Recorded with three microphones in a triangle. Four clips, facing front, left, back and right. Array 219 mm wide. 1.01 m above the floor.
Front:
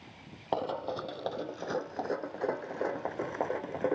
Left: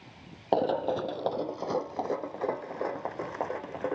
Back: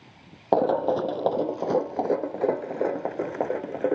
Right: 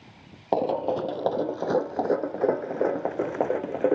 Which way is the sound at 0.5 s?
170° right.